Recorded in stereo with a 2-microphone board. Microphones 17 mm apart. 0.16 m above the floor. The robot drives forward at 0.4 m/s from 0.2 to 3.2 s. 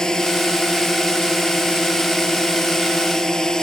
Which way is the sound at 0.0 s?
35° left (ahead or behind).